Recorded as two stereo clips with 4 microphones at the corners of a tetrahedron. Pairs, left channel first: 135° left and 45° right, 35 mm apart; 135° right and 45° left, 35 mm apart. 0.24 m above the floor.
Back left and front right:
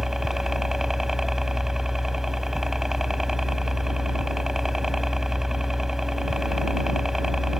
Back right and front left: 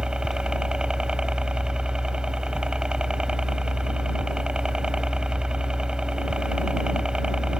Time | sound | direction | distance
0.0 | a helicopter | 20° left | ?